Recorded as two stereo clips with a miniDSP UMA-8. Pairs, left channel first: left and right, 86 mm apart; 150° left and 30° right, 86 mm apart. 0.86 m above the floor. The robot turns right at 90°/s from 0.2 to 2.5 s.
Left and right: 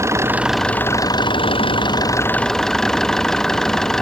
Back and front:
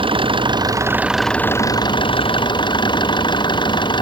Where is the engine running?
30° right; by 4.0 s 175° left.